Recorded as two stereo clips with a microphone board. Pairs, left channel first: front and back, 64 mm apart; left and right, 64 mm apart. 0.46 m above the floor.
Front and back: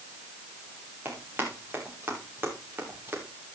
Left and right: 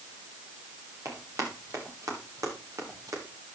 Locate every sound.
1.1 s running footsteps: 120° right, 7 m